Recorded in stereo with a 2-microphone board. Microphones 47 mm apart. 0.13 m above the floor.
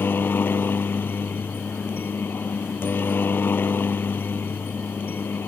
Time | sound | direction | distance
0.0 | a helicopter | 45° left (ahead or behind) | ?